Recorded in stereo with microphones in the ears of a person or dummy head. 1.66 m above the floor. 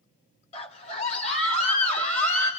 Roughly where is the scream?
Left.